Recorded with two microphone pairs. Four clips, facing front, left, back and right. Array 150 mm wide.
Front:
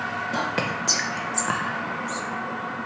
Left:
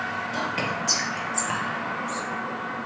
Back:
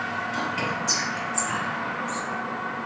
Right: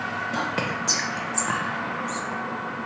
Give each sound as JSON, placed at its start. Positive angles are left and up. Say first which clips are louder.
{"t": 0.3, "sound": "whispering", "louder": "right 1 dB, front 3 dB", "azimuth_deg": -35, "distance_m": 0.7}